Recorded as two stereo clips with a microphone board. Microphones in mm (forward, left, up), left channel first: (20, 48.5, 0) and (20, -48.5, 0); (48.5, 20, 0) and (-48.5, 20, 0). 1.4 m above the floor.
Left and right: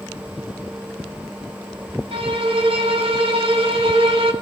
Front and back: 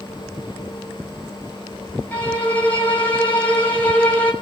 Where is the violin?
70° right, 6.5 m.